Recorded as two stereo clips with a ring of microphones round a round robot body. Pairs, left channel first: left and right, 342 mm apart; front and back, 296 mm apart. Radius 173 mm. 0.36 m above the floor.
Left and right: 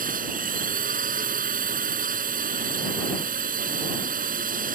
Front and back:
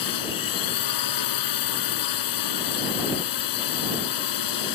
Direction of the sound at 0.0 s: 25° right.